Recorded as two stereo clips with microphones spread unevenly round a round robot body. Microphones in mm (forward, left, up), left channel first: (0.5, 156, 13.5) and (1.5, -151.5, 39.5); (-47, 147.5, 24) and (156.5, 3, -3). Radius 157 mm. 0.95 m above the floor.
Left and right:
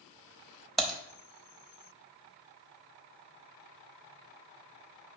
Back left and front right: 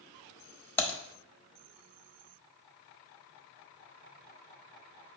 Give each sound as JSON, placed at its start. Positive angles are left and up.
{"t": 0.8, "sound": "typing on a keyboard", "azimuth_deg": -165, "distance_m": 0.7}